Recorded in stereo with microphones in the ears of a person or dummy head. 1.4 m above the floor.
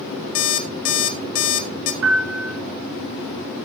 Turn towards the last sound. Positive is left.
turn(degrees=-70)  # may be behind; listen again after turning